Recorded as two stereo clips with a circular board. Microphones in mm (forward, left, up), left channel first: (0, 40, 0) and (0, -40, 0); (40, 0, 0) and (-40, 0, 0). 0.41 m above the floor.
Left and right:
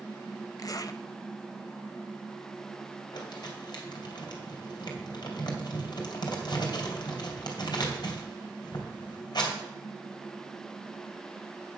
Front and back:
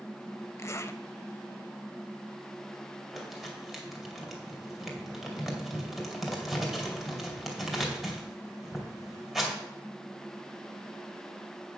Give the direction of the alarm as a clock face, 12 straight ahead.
No alarm in this recording.